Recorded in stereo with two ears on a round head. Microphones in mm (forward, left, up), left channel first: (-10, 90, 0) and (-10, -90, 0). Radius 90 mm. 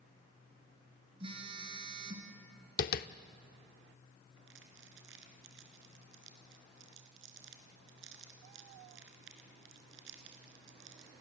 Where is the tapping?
50° left (ahead or behind), 0.7 m.